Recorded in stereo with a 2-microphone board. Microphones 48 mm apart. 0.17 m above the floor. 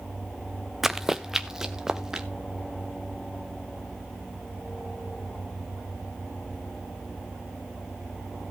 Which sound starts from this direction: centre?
Running footsteps, at 0.8 s.